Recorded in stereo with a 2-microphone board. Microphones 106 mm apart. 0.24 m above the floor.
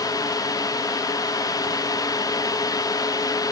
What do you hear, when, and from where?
Only background noise.